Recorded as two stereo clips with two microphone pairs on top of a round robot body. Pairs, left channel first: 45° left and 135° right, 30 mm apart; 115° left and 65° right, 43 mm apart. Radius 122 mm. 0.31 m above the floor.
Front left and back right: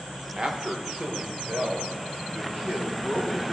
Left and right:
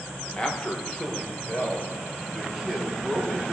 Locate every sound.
0.4 s a man speaking: 160° left, 1.2 m; by 3.5 s 160° right, 3 m